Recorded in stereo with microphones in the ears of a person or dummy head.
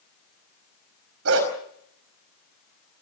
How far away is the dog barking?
About 5 m.